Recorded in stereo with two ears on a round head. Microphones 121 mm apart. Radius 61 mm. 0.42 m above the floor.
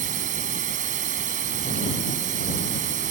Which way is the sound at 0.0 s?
60° right (ahead or behind).